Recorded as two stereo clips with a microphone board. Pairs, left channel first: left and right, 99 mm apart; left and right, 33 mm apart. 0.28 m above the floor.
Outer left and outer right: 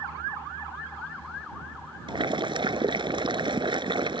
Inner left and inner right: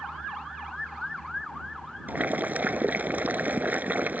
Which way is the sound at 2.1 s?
50° right (ahead or behind).